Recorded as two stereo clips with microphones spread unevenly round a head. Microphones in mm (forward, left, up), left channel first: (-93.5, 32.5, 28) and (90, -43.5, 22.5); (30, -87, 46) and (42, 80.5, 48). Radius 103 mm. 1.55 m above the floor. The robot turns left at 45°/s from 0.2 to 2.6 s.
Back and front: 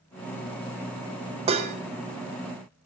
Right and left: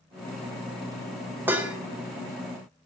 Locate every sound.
1.5 s dishes clattering: 20° left, 0.6 m; by 1.8 s 5° left, 0.6 m